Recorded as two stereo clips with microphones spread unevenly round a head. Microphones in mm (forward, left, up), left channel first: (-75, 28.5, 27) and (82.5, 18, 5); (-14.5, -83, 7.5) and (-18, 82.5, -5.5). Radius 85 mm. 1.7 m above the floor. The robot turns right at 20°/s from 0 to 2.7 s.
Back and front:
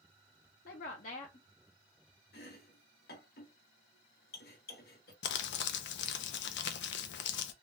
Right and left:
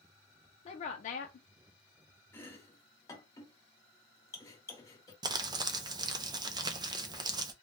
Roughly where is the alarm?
No alarm in this recording.